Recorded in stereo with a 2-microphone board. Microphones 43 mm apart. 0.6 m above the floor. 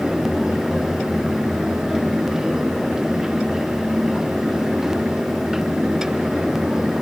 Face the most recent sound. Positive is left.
No sound to turn to.